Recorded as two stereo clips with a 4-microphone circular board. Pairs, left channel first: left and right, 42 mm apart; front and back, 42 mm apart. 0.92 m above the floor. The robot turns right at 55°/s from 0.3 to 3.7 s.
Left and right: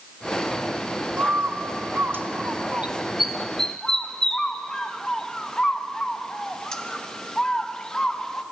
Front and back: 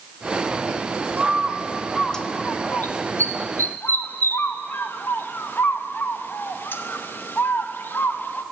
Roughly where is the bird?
Behind right.